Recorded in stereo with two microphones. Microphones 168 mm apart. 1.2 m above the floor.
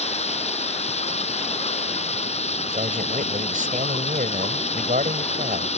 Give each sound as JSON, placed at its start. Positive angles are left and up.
{"t": 0.0, "sound": "running water", "side_deg": 40}
{"t": 2.7, "sound": "a man speaking", "side_deg": -50}